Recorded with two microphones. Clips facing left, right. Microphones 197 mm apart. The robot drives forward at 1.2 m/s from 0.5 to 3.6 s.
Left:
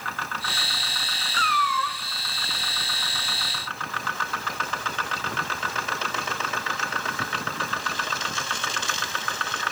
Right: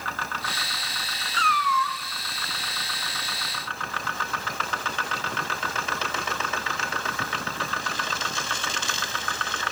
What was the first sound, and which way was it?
A cat meowing, 40° left (ahead or behind).